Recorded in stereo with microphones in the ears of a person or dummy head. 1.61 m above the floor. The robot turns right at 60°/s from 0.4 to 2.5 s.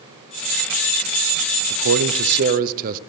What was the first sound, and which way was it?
A man speaking, 95° right.